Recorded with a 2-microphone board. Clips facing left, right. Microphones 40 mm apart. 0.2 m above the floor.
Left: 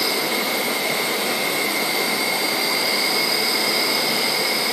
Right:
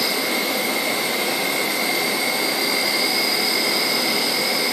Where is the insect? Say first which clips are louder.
Even; centre (ahead or behind), 1.1 m.